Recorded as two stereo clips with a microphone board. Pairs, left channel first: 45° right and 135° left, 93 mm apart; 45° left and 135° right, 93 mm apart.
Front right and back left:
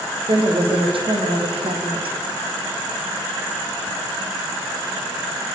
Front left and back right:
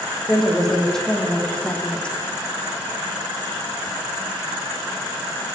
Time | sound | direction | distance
0.3 | a woman speaking | 130° left | 5 m